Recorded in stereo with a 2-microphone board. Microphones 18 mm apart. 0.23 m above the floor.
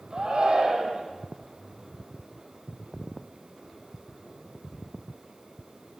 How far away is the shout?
About 9 m.